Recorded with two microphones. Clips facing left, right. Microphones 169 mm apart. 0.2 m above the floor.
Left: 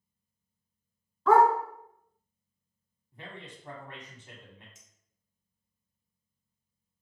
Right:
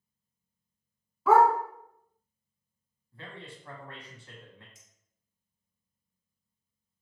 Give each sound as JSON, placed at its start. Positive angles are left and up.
{"t": 1.3, "sound": "a dog barking", "side_deg": -5, "distance_m": 0.7}
{"t": 3.1, "sound": "a man speaking", "side_deg": 20, "distance_m": 1.0}
{"t": 4.8, "sound": "a clink", "side_deg": -35, "distance_m": 0.8}